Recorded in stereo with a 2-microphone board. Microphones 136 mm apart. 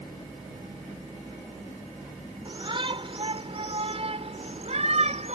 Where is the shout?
35° right (ahead or behind); by 5.4 s 55° right (ahead or behind).